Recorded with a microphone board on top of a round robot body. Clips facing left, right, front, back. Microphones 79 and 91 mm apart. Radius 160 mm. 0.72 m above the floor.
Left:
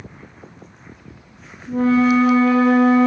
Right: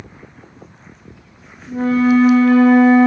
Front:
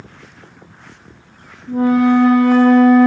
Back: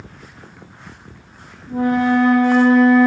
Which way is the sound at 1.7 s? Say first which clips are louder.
Right 1 dB, front 4 dB; 70° left.